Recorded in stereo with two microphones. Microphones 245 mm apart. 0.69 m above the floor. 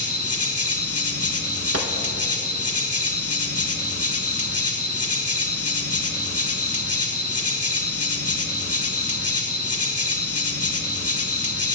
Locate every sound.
0.0 s an insect: 75° left (ahead or behind), 0.8 m
1.7 s a gunshot: 75° right (ahead or behind), 0.7 m